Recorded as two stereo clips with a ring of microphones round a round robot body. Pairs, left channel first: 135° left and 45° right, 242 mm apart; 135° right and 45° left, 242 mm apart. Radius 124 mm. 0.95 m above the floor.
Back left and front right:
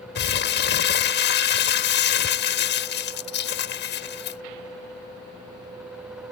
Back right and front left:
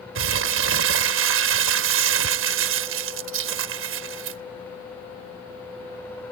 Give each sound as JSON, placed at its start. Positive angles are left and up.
{"t": 0.1, "sound": "crumpling", "azimuth_deg": 85}